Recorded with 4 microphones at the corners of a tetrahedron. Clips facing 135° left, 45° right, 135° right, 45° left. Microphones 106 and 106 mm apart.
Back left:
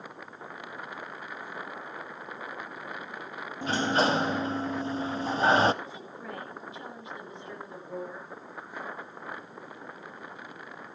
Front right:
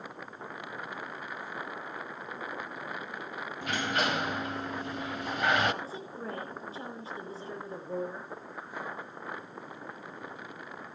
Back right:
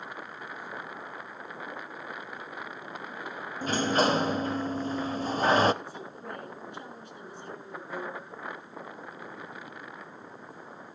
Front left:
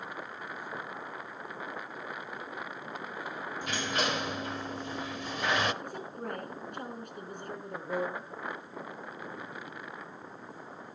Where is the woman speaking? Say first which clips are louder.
Front right 2 dB, front left 2 dB; 10° left, 4.5 m.